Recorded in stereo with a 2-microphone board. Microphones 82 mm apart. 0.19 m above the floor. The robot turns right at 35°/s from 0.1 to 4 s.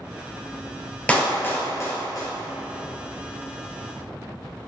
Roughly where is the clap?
Centre.